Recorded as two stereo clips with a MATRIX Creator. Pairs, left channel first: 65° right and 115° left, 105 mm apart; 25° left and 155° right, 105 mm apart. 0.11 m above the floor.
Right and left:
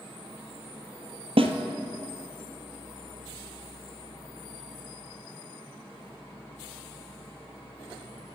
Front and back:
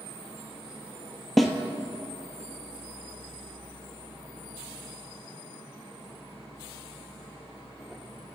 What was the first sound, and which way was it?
A snare drum, 110° left.